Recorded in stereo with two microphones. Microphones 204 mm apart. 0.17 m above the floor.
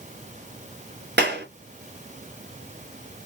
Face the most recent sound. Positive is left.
turn(degrees=-55)  # may be behind; listen again after turning